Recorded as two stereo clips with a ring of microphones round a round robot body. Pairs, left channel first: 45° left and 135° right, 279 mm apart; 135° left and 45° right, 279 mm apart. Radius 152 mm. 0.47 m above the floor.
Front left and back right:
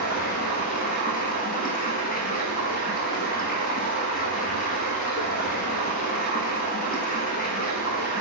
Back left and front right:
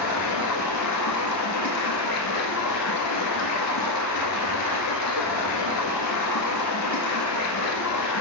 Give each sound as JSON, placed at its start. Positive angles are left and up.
{"t": 0.0, "sound": "running water", "azimuth_deg": 105, "distance_m": 1.3}